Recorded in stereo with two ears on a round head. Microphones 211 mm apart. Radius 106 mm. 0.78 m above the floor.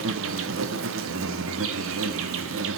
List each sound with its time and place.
0.0 s an insect: 65° right (ahead or behind), 1.5 m